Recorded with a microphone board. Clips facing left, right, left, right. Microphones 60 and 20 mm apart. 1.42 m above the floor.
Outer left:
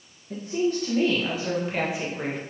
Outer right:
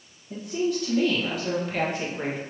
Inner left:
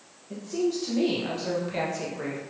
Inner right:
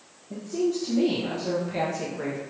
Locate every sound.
0.3 s a woman speaking: 45° left (ahead or behind), 1.3 m; by 2.4 s 10° right (ahead or behind), 0.9 m